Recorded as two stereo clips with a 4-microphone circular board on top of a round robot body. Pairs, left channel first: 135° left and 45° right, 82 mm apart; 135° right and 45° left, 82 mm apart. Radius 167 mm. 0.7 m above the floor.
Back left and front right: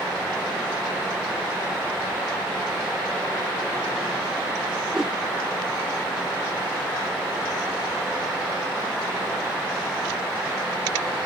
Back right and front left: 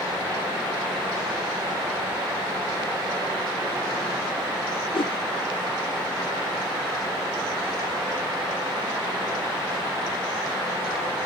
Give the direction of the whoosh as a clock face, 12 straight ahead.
4 o'clock.